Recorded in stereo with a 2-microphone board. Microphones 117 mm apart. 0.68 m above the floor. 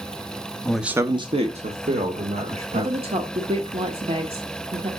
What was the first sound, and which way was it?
A man speaking, 10° left (ahead or behind).